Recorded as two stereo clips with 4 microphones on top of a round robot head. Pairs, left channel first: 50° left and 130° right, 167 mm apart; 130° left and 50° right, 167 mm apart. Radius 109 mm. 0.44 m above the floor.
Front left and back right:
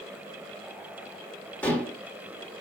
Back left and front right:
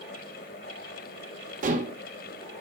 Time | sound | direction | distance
1.6 | dishes clattering | 25° right | 1.1 m